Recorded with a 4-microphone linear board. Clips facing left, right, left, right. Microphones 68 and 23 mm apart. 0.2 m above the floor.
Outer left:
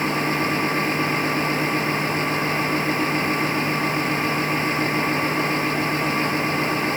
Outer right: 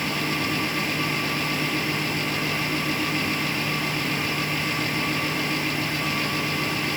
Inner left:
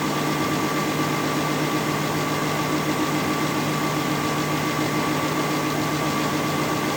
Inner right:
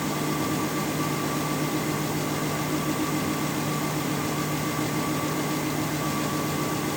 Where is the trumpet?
No trumpet in this recording.